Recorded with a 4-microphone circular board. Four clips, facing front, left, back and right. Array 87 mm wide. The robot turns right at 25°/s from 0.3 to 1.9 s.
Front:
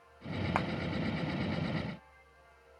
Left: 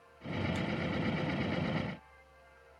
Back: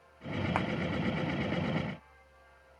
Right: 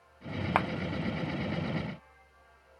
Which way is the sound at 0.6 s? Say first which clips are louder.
Right 8 dB, even; 90° right.